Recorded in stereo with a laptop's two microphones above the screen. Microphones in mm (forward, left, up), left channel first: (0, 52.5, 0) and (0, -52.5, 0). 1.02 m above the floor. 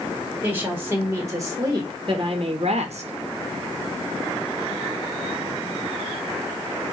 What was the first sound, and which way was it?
A woman speaking, 15° right (ahead or behind).